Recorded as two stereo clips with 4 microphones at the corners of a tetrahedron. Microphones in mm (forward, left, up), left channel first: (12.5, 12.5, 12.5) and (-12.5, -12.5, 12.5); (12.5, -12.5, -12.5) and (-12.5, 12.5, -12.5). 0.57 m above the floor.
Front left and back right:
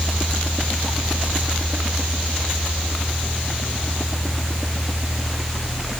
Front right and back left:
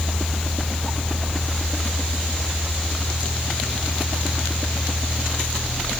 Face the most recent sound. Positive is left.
No sound to turn to.